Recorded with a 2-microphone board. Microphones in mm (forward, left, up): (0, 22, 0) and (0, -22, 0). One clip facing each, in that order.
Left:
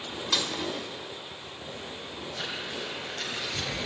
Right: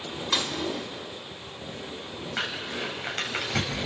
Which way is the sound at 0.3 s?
15° right (ahead or behind).